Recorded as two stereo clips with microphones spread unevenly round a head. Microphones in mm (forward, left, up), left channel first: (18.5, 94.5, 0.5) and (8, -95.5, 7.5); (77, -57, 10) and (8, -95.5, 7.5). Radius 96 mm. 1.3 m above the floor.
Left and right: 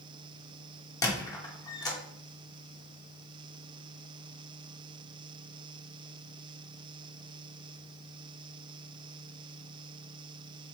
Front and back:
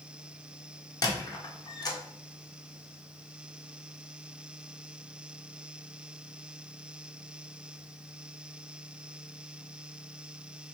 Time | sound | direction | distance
1.0 | a squeak | 15° left | 0.8 m